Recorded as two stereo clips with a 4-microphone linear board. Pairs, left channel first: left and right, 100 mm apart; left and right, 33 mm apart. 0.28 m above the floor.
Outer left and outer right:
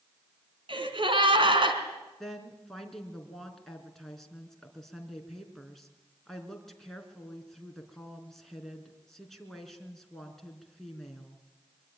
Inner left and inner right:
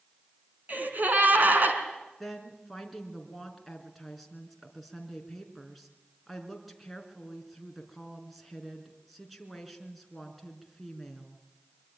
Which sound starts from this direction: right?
A gasp, at 0.7 s.